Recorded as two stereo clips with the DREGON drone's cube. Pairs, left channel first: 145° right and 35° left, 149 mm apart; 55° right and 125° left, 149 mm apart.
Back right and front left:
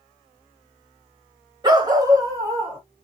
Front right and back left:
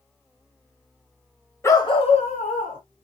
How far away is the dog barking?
About 0.8 m.